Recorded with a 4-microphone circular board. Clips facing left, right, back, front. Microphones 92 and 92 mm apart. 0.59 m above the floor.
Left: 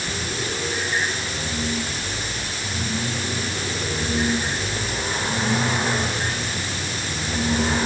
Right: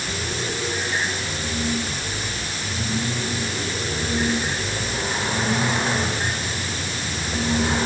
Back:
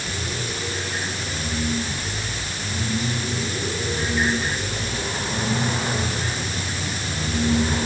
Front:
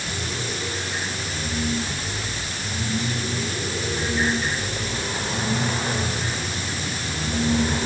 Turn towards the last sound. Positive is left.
No sound to turn to.